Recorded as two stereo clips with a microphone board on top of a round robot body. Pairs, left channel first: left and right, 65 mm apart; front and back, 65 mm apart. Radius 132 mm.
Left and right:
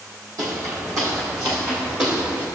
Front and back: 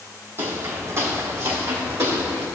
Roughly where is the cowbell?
I don't hear a cowbell.